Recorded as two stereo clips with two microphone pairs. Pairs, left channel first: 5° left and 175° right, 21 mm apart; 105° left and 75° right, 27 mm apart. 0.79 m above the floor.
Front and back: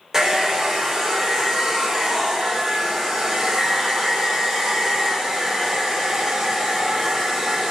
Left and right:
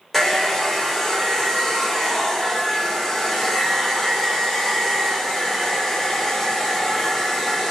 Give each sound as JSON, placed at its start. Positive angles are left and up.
{"t": 0.1, "sound": "a hair dryer", "azimuth_deg": 180, "distance_m": 0.8}